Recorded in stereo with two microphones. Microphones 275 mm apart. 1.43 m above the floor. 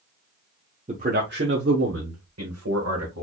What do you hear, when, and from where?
0.9 s a man speaking: 25° right (ahead or behind), 0.8 m; by 3.2 s 75° right (ahead or behind), 1.6 m